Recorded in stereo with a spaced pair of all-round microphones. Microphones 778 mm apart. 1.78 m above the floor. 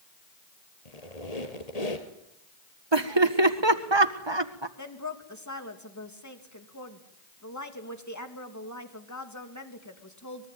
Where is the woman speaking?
20° left (ahead or behind), 3 m.